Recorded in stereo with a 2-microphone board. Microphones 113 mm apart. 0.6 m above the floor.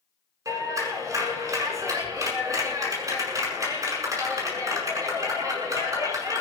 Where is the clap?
30° right (ahead or behind), 7 m.